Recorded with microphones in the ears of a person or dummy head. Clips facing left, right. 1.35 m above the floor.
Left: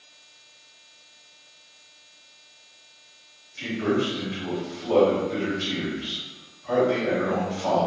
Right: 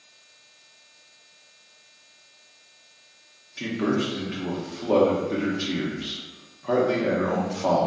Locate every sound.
3.6 s a man speaking: 55° right (ahead or behind), 0.8 m